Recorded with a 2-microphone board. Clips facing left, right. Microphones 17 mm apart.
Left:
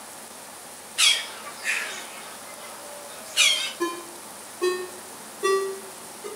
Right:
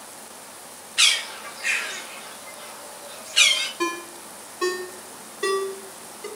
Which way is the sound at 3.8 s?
65° right (ahead or behind).